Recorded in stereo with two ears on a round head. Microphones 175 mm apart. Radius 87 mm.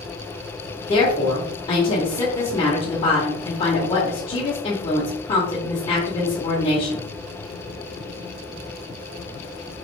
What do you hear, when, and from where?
0.9 s a woman speaking: 25° left (ahead or behind), 1.1 m